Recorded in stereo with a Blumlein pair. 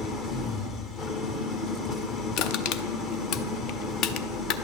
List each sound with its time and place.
0.0 s an engine running: 30° left, 1.2 m
2.4 s crushing: 40° left, 0.5 m